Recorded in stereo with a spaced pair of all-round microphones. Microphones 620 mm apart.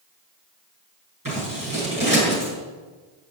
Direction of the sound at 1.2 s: 30° right (ahead or behind).